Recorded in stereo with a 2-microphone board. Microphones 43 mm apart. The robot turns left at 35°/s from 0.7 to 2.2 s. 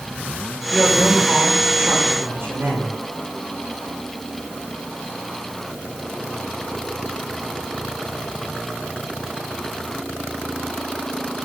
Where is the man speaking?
15° right, 6 m; by 2.9 s 65° right, 6 m.